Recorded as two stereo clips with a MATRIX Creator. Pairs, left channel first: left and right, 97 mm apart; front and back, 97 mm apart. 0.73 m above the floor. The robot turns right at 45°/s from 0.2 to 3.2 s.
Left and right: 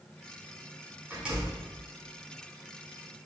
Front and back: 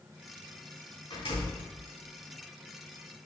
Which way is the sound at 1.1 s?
20° right.